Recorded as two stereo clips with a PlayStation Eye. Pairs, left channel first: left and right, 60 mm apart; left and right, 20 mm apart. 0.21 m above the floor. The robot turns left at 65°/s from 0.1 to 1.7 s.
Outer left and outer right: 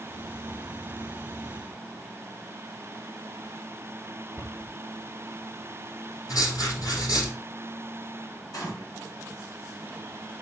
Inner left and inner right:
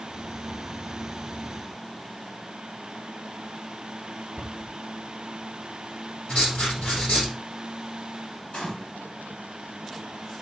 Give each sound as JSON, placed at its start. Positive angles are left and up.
{"t": 4.4, "sound": "a cupboard door", "side_deg": 55, "distance_m": 3.5}
{"t": 6.3, "sound": "writing", "side_deg": 80, "distance_m": 4.5}
{"t": 8.5, "sound": "a gunshot", "side_deg": 80, "distance_m": 3.0}